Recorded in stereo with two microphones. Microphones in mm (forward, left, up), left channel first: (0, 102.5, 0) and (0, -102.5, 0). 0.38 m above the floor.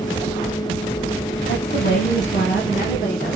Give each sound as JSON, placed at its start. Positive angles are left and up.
{"t": 1.5, "sound": "a woman speaking", "side_deg": 50, "distance_m": 2.5}